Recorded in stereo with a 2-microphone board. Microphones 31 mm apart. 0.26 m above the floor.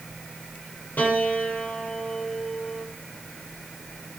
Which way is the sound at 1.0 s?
80° left.